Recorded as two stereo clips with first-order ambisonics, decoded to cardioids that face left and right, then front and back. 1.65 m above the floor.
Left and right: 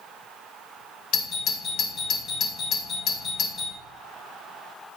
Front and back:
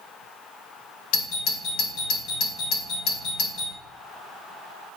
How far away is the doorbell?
About 1.6 m.